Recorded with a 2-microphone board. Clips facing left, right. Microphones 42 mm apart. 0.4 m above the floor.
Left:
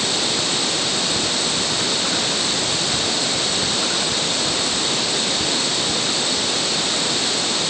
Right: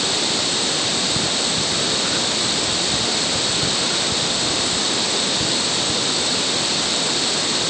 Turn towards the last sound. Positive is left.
No sound to turn to.